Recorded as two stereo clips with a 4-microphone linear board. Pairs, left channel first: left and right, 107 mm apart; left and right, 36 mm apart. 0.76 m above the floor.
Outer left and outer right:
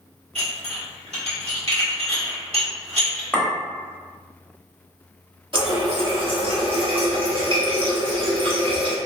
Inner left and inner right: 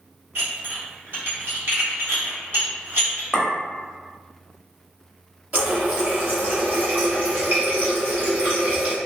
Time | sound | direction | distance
0.3 | dishes clattering | 65° right (ahead or behind) | 1.2 m
3.3 | a clink | 10° left (ahead or behind) | 0.9 m
5.5 | a running tap | 50° right (ahead or behind) | 0.8 m